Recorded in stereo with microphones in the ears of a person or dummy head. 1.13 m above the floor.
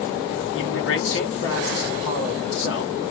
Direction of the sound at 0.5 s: 60° left (ahead or behind).